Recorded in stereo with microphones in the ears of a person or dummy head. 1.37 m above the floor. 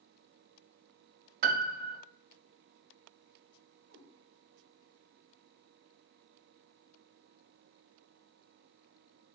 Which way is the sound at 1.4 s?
55° right (ahead or behind).